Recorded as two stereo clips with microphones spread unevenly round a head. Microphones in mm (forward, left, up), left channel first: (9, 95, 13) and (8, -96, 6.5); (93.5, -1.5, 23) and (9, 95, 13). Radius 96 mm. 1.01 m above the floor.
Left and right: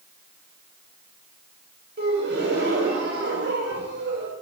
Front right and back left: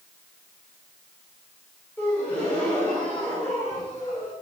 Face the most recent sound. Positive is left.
turn(degrees=-130)